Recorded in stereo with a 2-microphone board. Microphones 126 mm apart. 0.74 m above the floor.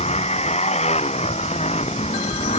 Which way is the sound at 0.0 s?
60° left (ahead or behind).